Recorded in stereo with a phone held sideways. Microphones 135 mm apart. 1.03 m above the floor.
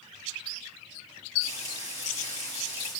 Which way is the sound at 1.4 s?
55° left (ahead or behind).